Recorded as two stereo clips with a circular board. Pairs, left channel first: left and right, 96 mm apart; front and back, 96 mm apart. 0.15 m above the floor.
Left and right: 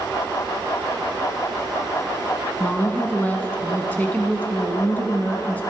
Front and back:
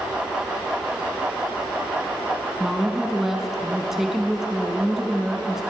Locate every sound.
2.6 s a woman speaking: 100° left, 1.0 m